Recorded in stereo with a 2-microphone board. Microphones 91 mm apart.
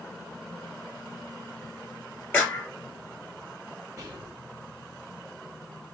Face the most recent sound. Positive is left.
turn(degrees=-35)  # may be behind; listen again after turning